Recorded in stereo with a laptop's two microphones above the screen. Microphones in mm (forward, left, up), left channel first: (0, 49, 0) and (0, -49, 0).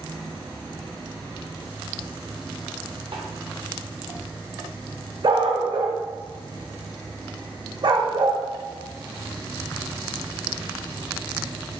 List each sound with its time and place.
3.1 s a snare drum: 70° right (ahead or behind), 0.7 m
5.2 s a dog barking: 55° right (ahead or behind), 0.5 m